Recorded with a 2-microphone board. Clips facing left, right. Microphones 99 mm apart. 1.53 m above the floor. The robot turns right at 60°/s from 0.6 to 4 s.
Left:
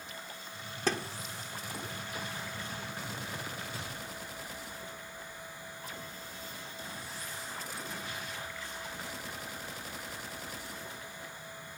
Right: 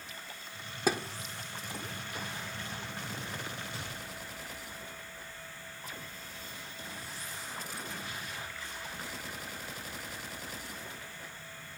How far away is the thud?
About 1.5 m.